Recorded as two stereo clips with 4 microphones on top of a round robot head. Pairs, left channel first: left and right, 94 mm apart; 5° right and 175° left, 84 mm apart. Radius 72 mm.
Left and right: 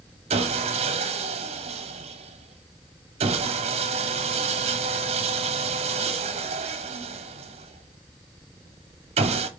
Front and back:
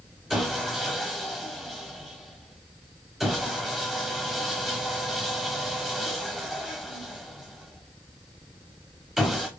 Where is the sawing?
95° right, 0.6 m.